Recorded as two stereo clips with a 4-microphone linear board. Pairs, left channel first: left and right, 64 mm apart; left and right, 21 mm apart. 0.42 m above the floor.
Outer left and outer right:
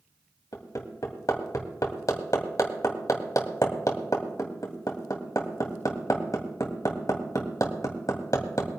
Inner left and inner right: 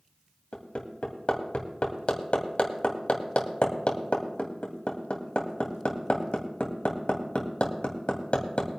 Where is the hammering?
65° left (ahead or behind), 2.5 m.